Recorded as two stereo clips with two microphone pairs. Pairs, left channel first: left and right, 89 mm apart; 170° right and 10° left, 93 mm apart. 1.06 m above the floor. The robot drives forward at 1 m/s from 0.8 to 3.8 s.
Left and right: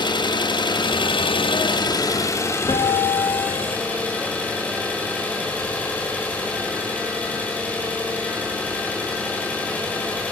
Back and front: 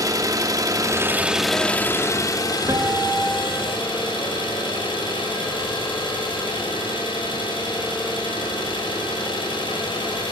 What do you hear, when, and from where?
0.0 s an engine running: 60° left, 1.1 m; by 10.3 s 160° left, 2.5 m
2.7 s a guitar: 65° left, 1.4 m; by 3.8 s 115° left, 1.4 m